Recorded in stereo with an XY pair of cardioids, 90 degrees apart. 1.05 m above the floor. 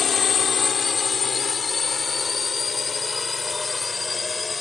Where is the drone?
60° left; by 4.6 s 35° left.